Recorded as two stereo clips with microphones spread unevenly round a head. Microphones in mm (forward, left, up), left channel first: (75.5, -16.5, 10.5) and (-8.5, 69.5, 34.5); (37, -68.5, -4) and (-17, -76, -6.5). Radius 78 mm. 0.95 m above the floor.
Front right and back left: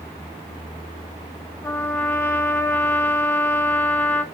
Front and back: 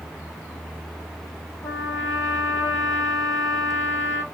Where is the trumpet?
30° left, 0.6 m.